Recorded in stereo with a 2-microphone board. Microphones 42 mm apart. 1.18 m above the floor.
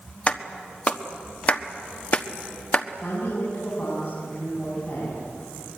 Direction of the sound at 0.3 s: 35° left (ahead or behind).